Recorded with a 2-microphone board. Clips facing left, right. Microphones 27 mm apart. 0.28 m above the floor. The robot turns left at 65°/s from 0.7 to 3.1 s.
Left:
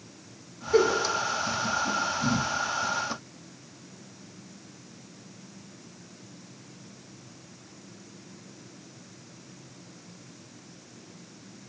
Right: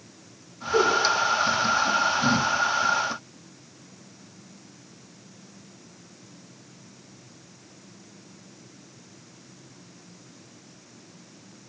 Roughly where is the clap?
I don't hear a clap.